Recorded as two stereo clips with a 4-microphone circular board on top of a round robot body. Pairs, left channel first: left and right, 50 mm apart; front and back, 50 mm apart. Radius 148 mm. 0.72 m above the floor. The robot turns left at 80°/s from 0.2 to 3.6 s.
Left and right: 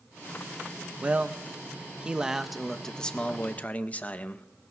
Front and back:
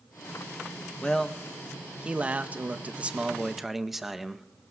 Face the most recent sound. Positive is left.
turn(degrees=100)